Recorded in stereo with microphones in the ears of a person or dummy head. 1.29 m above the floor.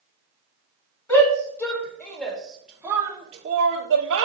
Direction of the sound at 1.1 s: 15° left (ahead or behind).